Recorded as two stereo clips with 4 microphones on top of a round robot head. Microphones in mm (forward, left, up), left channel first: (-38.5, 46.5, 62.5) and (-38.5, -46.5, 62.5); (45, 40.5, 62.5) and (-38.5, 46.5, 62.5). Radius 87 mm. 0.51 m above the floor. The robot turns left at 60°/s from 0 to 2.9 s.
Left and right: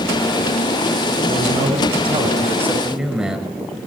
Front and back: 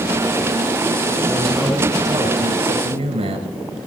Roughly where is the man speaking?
Right.